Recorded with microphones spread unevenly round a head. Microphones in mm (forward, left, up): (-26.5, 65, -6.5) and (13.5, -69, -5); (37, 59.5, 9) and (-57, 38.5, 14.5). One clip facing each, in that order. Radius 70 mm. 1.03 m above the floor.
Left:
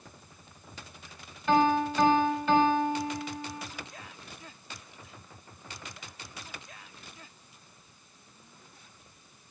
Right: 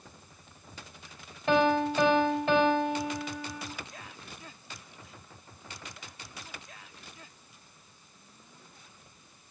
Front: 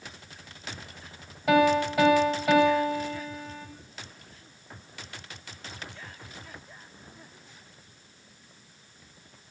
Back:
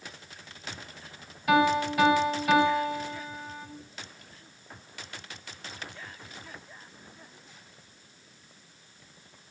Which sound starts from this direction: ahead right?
A piano, at 1.5 s.